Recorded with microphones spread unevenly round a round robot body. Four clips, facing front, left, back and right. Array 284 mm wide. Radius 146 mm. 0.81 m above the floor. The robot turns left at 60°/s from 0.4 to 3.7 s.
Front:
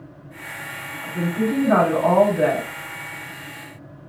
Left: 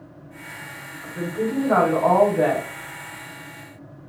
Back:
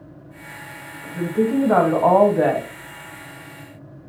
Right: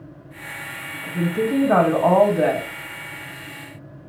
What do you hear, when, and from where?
1.0 s a woman speaking: 85° right, 1.3 m; by 2.7 s 175° left, 1.3 m